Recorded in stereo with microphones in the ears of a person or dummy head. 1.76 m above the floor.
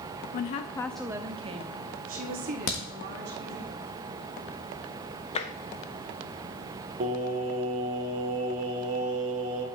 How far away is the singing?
About 1.6 m.